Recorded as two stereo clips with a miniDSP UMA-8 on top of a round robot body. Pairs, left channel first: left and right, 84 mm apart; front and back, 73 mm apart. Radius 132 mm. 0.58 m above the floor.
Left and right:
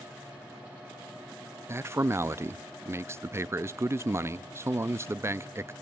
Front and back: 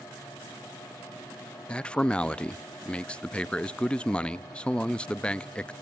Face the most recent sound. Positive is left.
turn(degrees=-65)